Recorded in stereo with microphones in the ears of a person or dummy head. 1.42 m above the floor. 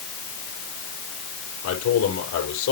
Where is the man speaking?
90° left, 4.5 m.